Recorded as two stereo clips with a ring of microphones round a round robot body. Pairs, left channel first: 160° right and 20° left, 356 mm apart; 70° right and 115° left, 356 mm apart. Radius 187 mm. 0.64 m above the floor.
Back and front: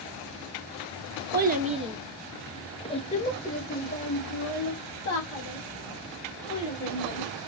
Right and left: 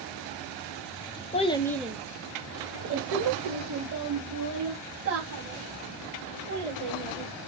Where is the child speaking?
10° right, 0.7 m; by 7.3 s 145° left, 3 m.